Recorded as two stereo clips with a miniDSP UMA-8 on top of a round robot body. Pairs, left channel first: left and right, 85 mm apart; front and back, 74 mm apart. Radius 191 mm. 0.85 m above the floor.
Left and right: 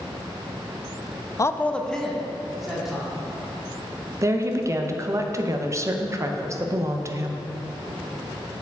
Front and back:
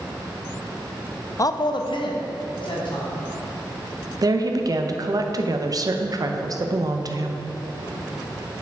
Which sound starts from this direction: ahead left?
A man speaking, at 1.4 s.